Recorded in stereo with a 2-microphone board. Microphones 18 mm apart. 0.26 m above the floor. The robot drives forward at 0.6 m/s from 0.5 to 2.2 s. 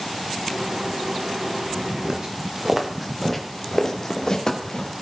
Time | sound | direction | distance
2.0 | footsteps | 40° right (ahead or behind) | 2 m